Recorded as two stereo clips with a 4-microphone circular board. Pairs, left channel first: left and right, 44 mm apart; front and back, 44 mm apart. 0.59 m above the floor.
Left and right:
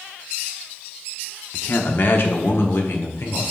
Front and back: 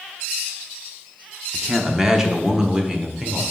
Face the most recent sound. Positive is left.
turn(degrees=110)